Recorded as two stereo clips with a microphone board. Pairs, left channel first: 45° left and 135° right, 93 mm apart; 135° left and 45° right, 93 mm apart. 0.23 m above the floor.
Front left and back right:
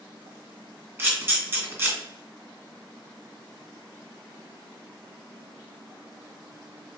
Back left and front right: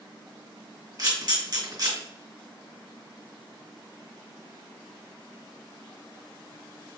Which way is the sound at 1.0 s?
75° right.